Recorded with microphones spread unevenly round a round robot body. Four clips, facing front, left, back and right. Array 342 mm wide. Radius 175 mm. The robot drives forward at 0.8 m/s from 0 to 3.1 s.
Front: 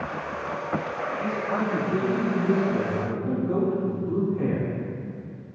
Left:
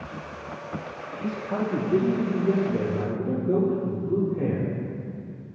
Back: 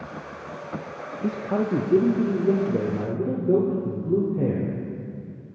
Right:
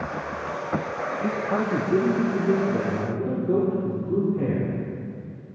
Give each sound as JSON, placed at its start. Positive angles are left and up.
{"t": 1.2, "sound": "a man speaking", "azimuth_deg": -165, "distance_m": 0.7}